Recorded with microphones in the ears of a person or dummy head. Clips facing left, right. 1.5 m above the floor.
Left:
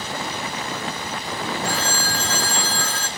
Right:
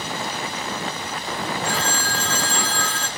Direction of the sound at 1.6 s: 35° left (ahead or behind).